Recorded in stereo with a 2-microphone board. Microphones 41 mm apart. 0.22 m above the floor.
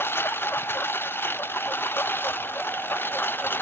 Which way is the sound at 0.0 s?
90° left.